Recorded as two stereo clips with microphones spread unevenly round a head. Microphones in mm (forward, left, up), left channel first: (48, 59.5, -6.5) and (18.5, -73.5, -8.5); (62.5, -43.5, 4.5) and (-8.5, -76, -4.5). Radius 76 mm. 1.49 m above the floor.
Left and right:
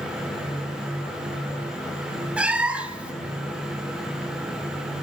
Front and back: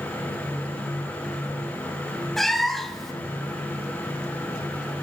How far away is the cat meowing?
About 0.8 m.